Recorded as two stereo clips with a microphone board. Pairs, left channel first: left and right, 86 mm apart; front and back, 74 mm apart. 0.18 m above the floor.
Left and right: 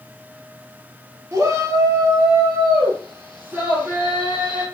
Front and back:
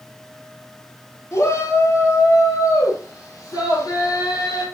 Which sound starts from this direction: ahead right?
A shout, at 1.3 s.